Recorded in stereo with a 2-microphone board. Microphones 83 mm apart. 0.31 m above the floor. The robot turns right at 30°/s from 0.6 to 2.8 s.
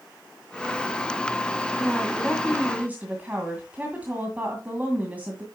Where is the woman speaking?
5° left (ahead or behind), 2 m; by 5.5 s 20° right (ahead or behind), 2 m.